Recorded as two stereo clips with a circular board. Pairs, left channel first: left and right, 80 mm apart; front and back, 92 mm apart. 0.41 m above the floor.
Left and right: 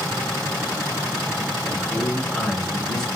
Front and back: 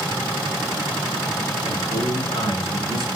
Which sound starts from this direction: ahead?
A man speaking, at 1.6 s.